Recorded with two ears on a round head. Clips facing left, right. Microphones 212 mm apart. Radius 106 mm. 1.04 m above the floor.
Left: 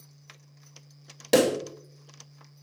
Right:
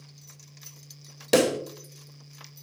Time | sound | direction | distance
1.3 | a pop | 5° right (ahead or behind) | 0.7 m